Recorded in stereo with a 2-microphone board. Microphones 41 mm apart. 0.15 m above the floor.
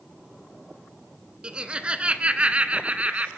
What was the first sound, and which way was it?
Laughter, 25° right (ahead or behind).